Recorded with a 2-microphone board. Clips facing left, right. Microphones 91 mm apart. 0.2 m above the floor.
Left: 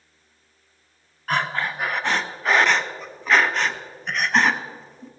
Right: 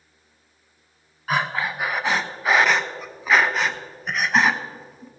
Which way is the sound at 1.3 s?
5° right (ahead or behind).